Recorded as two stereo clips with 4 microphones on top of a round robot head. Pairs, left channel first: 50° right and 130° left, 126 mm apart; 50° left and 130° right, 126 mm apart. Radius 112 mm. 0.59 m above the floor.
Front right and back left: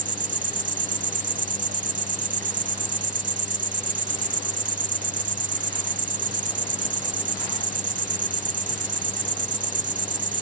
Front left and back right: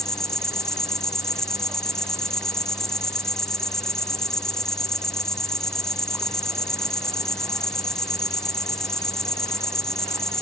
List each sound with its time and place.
0.0 s an insect: 140° left